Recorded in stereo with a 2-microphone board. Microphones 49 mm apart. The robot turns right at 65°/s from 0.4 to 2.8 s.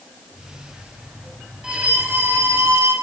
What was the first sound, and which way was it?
A violin, 165° right.